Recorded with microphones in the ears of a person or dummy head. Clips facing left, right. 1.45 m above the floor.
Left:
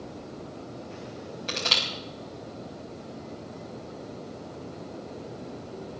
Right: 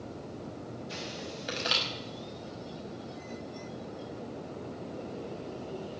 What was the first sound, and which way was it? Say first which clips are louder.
Crushing: left 2 dB; 15° right (ahead or behind).